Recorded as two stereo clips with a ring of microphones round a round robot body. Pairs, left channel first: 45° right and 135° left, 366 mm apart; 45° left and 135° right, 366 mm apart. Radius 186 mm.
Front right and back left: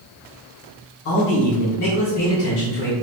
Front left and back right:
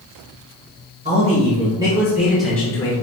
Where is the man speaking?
65° right, 1.5 m; by 2.9 s 20° right, 0.9 m.